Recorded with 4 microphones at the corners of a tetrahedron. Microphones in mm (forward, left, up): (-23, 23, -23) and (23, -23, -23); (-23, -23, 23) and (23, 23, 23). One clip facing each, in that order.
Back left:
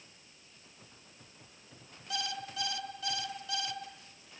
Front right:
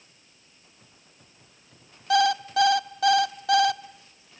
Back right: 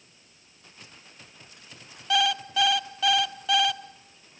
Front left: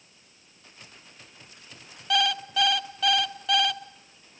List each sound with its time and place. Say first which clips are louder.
2.1 s an alarm clock: front right 18 dB, back right 1 dB; 50° right, 0.9 m